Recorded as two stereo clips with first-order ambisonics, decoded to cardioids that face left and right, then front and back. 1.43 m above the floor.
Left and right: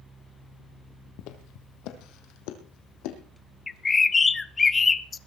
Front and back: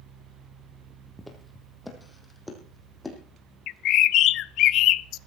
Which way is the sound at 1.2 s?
90° left.